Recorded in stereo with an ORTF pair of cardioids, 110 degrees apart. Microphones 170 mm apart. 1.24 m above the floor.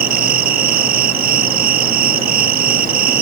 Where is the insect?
60° right.